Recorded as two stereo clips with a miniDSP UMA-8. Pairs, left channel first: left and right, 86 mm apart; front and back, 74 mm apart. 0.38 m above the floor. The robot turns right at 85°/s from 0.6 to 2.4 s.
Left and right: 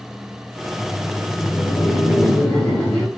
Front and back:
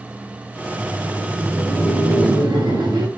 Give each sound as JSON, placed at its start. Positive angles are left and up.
{"t": 0.7, "sound": "laughter", "azimuth_deg": 10, "distance_m": 4.5}